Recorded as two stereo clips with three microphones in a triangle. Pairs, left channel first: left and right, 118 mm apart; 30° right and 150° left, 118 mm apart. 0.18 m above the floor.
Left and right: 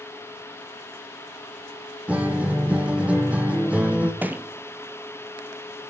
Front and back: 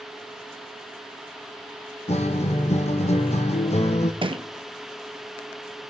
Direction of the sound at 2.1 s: 10° right.